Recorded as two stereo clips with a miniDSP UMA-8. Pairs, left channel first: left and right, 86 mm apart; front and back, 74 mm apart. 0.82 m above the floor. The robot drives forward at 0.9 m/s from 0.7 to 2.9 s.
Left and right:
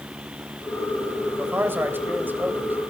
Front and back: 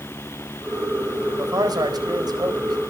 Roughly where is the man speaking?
Behind right.